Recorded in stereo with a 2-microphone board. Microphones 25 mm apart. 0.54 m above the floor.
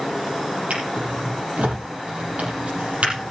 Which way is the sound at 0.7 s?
80° right.